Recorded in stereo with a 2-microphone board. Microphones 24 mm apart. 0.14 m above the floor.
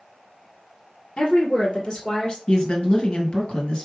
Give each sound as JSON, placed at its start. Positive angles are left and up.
{"t": 1.2, "sound": "a woman speaking", "side_deg": 35, "distance_m": 1.9}
{"t": 2.5, "sound": "a woman speaking", "side_deg": 45, "distance_m": 2.0}